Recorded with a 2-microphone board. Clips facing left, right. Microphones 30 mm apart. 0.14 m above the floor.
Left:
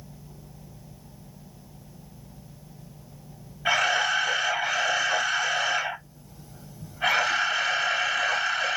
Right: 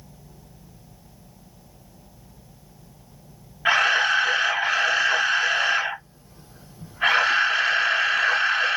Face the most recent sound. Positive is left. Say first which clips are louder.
# right 4 dB
turn(degrees=-35)  # may be behind; listen again after turning